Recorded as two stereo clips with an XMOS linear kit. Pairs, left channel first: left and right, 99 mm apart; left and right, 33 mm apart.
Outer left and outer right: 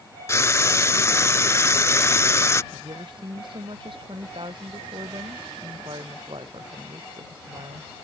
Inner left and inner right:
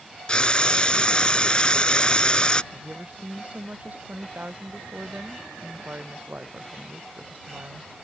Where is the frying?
30° left (ahead or behind).